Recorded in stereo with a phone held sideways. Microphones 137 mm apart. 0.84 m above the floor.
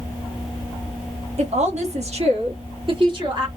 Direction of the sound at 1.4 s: 60° right (ahead or behind).